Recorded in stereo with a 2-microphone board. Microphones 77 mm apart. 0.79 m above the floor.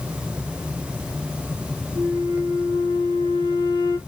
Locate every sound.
1.9 s a flute: 80° right, 3.5 m